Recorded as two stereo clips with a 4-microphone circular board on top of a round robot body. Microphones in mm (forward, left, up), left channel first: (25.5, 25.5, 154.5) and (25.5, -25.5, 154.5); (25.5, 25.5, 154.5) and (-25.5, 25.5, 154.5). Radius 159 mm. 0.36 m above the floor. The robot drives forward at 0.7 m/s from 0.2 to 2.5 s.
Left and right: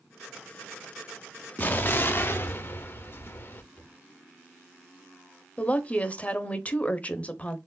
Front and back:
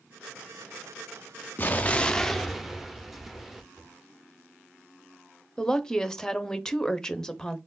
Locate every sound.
1.6 s an explosion: 45° left, 1.1 m; by 3.6 s 95° left, 0.9 m
3.7 s a cupboard door: 150° left, 3 m
5.6 s a woman speaking: 65° left, 0.9 m